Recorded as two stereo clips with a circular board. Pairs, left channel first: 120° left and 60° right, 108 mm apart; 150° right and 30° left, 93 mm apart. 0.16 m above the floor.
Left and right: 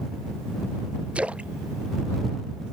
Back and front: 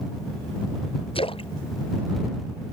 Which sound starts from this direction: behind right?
A splash, at 1.1 s.